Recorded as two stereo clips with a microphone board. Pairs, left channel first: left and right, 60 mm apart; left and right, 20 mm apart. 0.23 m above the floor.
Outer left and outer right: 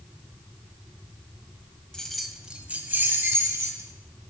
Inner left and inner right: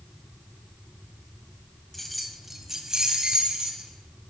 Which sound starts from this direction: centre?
Keys jangling, at 1.9 s.